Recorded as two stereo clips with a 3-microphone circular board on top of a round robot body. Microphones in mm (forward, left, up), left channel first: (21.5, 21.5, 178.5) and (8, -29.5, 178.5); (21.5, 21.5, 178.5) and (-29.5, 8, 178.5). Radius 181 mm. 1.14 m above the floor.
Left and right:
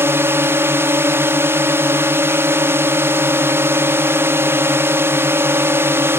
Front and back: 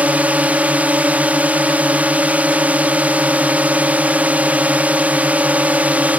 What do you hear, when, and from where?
0.0 s a drone: 115° right